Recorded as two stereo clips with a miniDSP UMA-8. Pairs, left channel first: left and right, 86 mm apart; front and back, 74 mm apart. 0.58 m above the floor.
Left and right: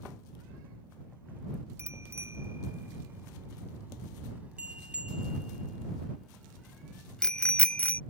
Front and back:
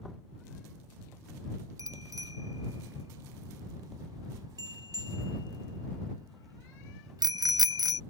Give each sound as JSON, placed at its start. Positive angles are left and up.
{"t": 1.8, "sound": "a bicycle bell", "azimuth_deg": -145}